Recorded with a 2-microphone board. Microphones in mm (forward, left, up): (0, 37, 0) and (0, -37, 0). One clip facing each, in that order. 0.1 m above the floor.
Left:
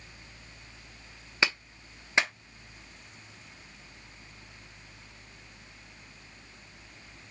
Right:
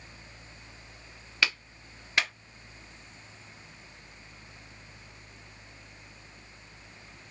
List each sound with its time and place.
1.4 s a clap: 25° left (ahead or behind), 0.9 m